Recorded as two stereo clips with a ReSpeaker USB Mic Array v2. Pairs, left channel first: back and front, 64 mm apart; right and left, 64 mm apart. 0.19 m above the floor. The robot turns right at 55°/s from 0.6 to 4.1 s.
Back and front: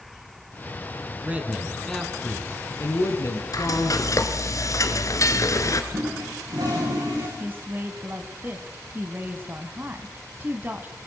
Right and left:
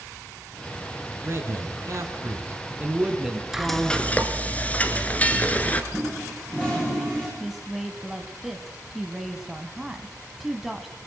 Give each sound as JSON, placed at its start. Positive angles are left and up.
{"t": 1.2, "sound": "a man speaking", "azimuth_deg": 60, "distance_m": 2.5}
{"t": 3.5, "sound": "frying", "azimuth_deg": 175, "distance_m": 1.5}
{"t": 5.9, "sound": "a toilet flushing", "azimuth_deg": -20, "distance_m": 7.5}
{"t": 7.4, "sound": "a woman speaking", "azimuth_deg": 10, "distance_m": 1.3}